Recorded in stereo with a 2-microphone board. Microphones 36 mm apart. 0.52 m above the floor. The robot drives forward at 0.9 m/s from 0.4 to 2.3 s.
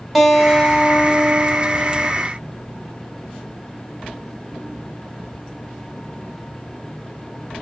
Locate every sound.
0.1 s a guitar: 5° right (ahead or behind), 2 m; by 2.1 s 15° right (ahead or behind), 1.1 m